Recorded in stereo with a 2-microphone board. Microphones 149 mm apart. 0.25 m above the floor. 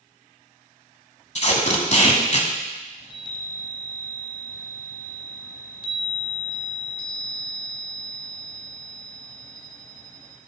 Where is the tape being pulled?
50° left (ahead or behind), 1.2 m.